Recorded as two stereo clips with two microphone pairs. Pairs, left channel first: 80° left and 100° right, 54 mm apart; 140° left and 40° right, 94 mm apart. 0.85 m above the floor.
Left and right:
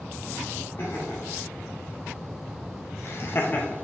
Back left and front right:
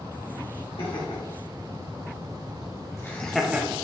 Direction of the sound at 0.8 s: 125° left.